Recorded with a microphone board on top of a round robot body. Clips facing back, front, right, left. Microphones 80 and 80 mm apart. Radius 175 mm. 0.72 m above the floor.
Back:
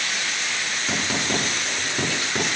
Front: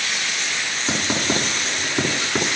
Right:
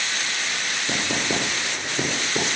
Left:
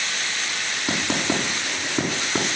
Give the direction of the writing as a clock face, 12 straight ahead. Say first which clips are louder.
Front 3 dB, left 2 dB; 10 o'clock.